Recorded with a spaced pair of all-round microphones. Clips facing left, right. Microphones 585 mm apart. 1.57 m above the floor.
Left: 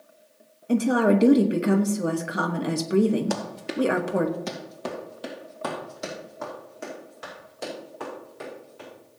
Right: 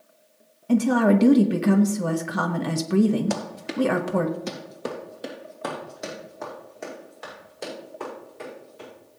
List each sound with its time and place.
0.7 s a woman speaking: 25° right (ahead or behind), 0.8 m
3.3 s running footsteps: 30° right (ahead or behind), 1.9 m; by 8.9 s 40° left (ahead or behind), 9 m